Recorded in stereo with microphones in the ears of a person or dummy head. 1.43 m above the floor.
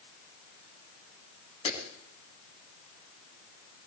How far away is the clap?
About 9 m.